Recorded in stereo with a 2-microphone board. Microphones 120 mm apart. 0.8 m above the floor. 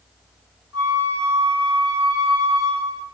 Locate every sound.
0.7 s a flute: 5° left (ahead or behind), 1.9 m